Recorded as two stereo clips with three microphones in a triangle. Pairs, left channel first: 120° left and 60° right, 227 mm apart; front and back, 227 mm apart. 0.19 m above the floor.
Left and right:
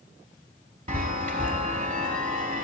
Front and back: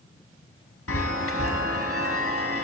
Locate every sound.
0.9 s a chime: 10° right, 0.6 m